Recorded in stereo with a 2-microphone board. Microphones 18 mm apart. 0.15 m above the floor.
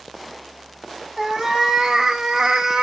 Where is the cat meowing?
30° right (ahead or behind), 1.3 m; by 2.8 s 45° right (ahead or behind), 0.6 m.